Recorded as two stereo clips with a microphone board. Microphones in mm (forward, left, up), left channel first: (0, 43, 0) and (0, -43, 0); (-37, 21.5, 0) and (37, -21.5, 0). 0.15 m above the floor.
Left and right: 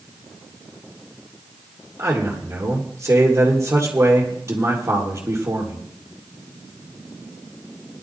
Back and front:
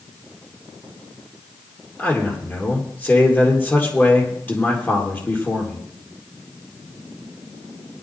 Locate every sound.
2.0 s a man speaking: 145° right, 4 m